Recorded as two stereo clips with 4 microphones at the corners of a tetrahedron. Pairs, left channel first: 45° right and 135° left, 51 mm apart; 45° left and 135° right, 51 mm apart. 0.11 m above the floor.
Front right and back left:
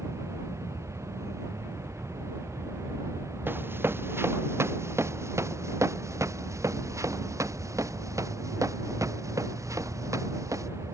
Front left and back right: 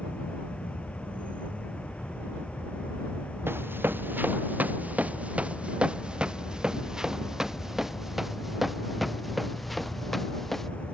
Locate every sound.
0.0 s an insect: 110° left
3.5 s running footsteps: straight behind; by 10.7 s 130° left